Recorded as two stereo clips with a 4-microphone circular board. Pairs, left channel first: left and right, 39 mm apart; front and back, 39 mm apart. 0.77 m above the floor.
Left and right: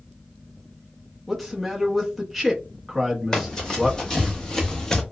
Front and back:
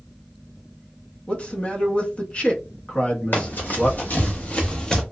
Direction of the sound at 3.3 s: 15° left.